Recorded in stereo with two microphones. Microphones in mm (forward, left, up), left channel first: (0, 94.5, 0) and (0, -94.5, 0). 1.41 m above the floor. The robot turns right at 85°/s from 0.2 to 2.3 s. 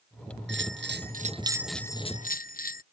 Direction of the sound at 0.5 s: 105° right.